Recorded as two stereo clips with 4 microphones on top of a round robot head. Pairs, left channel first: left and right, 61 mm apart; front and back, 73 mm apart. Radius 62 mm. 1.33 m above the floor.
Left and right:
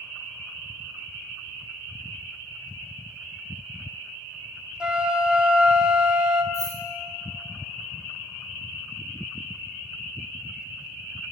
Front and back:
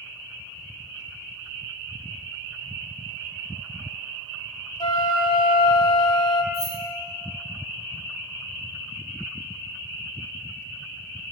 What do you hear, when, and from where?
4.8 s a flute: 15° right, 0.8 m
6.5 s keys jangling: 60° right, 2.5 m